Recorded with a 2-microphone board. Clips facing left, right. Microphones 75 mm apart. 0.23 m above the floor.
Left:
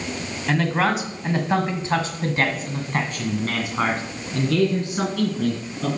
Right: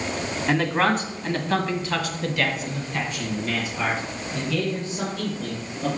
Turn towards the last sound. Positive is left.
turn(degrees=65)  # may be behind; listen again after turning